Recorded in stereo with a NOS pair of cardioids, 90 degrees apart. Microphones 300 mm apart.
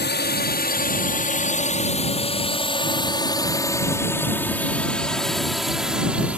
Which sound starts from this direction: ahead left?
A drone, at 0.0 s.